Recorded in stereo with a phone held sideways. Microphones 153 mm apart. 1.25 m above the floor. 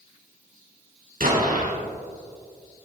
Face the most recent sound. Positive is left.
turn(degrees=-65)  # may be behind; listen again after turning